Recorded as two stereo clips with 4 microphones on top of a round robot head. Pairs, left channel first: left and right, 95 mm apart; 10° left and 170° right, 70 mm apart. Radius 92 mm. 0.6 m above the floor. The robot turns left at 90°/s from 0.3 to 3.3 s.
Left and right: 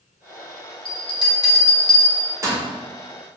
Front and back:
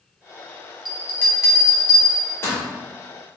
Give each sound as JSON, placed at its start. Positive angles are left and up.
{"t": 0.8, "sound": "a bell", "azimuth_deg": 105, "distance_m": 1.6}